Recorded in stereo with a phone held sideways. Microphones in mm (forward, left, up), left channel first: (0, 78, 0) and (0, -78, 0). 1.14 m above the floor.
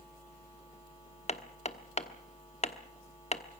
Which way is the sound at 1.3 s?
45° left (ahead or behind).